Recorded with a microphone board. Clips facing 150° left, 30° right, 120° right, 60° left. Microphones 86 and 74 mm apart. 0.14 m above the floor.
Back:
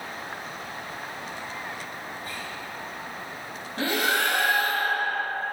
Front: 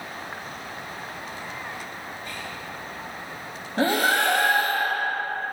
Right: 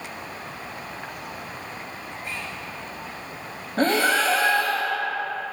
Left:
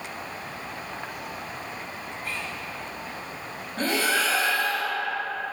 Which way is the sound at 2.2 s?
Straight behind.